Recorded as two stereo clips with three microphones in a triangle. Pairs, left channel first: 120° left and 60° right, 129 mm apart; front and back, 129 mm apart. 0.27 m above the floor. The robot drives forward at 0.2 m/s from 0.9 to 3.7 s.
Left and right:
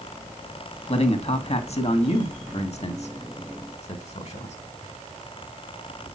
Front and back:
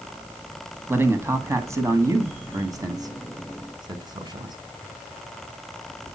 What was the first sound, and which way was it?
A man speaking, 115° left.